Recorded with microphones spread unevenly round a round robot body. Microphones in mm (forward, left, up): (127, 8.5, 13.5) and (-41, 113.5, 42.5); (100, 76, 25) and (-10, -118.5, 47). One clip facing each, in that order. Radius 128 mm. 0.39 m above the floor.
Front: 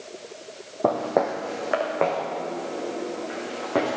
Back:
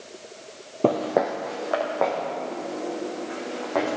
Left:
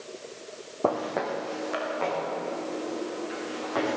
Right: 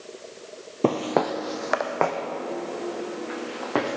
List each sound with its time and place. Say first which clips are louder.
0.8 s footsteps: back 1 dB, right 5 dB; 160° right, 0.6 m; by 4.0 s 95° right, 4 m